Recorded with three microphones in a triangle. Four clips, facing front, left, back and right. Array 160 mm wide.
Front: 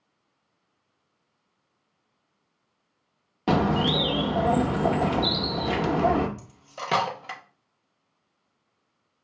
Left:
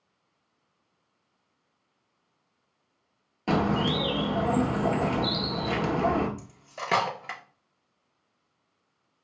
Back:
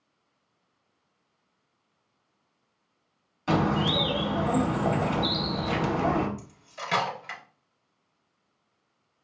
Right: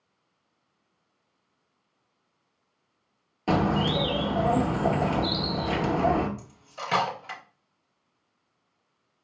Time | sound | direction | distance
3.5 | a bird | straight ahead | 0.8 m
6.4 | cutlery clinking | 45° left | 0.8 m